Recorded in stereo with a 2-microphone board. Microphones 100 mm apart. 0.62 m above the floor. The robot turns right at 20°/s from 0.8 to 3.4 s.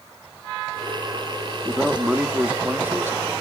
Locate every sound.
1.6 s a man speaking: 175° right, 0.8 m; by 3.2 s 145° right, 0.8 m